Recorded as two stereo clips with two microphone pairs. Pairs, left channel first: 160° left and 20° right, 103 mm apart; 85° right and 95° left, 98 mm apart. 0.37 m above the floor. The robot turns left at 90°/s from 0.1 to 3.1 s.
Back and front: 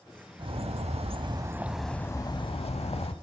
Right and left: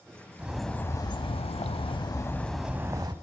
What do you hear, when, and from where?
0.4 s a bird: 20° left, 0.6 m; by 3.1 s 135° left, 0.6 m